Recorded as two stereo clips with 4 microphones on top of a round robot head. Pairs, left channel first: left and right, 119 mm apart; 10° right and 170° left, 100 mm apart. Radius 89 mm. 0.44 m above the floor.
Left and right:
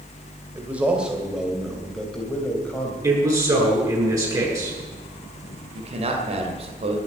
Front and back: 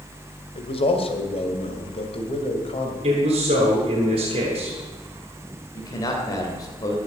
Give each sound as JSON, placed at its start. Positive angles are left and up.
{"t": 0.6, "sound": "a man speaking", "azimuth_deg": -15, "distance_m": 2.5}
{"t": 3.0, "sound": "a man speaking", "azimuth_deg": -150, "distance_m": 8.0}
{"t": 5.8, "sound": "a man speaking", "azimuth_deg": -60, "distance_m": 2.5}